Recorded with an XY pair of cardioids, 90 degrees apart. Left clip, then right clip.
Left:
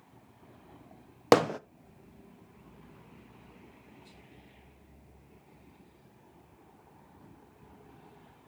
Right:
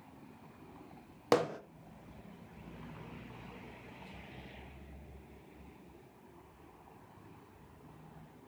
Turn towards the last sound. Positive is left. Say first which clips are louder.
# left 7 dB
turn(degrees=65)